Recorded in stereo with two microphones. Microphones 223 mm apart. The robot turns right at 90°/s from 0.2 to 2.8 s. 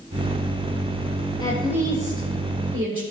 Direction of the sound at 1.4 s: 160° left.